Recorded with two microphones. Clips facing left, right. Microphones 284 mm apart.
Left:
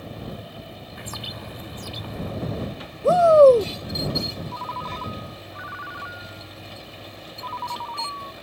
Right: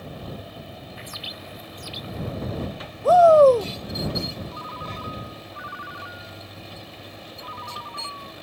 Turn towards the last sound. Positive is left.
turn(degrees=65)  # may be behind; listen again after turning